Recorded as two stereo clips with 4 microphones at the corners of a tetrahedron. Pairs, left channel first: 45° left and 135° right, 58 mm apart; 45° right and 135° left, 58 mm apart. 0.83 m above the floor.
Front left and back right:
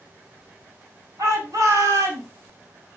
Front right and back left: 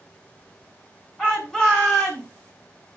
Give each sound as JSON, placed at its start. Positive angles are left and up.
{"t": 1.2, "sound": "a shout", "azimuth_deg": -125, "distance_m": 8.5}